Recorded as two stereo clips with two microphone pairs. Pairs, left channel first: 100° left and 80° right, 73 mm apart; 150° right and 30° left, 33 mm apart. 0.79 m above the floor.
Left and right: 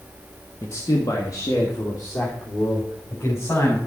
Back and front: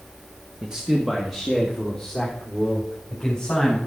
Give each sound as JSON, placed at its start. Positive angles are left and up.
{"t": 0.6, "sound": "a man speaking", "azimuth_deg": 80, "distance_m": 1.2}